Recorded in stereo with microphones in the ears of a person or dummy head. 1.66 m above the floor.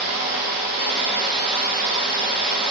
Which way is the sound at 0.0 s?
30° right (ahead or behind).